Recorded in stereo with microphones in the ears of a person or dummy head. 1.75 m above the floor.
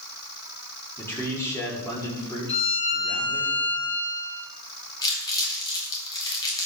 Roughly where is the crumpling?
Centre.